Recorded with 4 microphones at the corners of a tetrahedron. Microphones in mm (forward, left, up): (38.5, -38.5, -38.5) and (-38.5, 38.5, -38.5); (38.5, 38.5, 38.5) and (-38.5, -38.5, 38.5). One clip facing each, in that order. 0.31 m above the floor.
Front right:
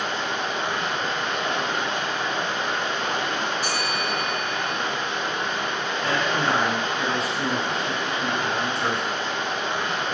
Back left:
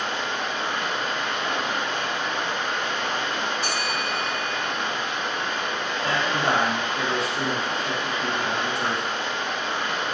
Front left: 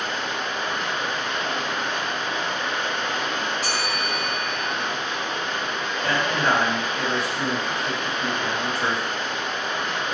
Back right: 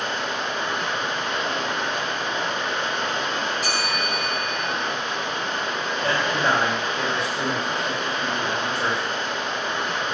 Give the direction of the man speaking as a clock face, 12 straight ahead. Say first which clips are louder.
Even, even; 7 o'clock.